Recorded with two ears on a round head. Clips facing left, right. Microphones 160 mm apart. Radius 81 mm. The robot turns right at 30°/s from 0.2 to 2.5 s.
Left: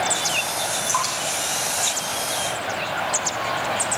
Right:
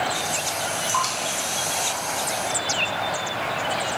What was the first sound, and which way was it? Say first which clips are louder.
Dripping: even; centre (ahead or behind).